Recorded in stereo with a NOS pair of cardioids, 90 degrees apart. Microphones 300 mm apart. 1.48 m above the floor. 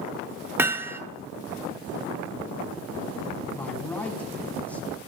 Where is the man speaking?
5° left, 8.5 m.